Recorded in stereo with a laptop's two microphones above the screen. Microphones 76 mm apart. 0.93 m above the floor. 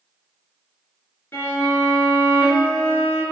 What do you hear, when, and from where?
1.3 s a violin: 30° left (ahead or behind), 3 m